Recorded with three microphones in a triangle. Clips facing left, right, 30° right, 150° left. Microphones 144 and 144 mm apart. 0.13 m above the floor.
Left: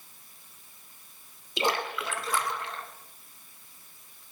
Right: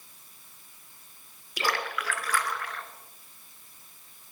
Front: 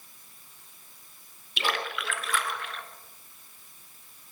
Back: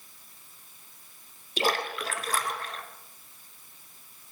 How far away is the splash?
About 1.0 m.